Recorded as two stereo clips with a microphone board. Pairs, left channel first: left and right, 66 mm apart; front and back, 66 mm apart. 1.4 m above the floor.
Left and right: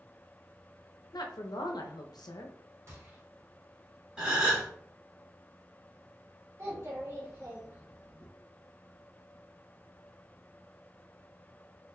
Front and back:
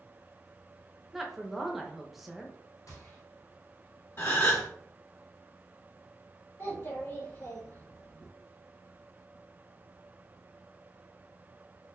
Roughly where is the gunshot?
Ahead right.